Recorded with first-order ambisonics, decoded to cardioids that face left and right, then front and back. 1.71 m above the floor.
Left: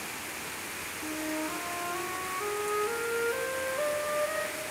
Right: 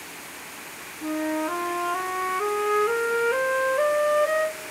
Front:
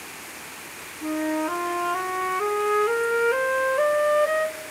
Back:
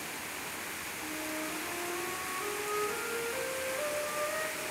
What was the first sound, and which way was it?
A flute, 35° right.